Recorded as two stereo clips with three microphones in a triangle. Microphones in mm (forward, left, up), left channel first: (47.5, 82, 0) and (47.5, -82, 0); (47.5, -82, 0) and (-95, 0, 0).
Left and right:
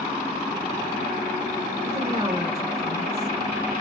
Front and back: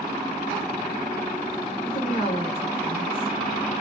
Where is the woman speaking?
25° right, 1.7 m.